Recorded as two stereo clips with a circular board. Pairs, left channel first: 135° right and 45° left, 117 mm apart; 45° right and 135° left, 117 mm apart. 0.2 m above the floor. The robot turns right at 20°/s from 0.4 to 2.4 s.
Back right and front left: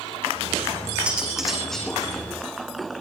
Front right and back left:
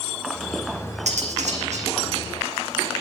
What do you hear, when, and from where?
1.1 s cutlery clinking: 125° left, 6.5 m; by 1.9 s 145° left, 6.5 m